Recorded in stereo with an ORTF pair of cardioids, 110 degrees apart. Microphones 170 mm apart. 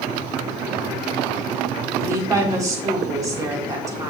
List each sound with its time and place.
2.0 s a woman speaking: 20° right, 2.5 m